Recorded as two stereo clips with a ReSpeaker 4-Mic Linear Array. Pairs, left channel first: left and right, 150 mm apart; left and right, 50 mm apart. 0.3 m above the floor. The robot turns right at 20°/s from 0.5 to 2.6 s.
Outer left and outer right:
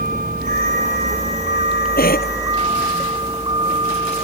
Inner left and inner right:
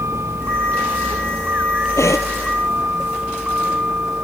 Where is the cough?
80° left.